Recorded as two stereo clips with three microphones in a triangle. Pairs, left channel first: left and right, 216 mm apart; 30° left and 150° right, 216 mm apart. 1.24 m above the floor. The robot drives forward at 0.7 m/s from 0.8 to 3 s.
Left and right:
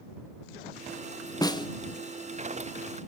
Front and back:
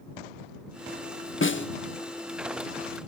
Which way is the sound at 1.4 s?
20° left.